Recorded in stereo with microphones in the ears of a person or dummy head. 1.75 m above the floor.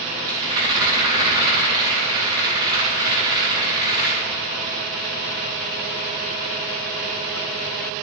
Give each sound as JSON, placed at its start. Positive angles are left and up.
{"t": 0.3, "sound": "a rattle", "side_deg": -25, "distance_m": 2.5}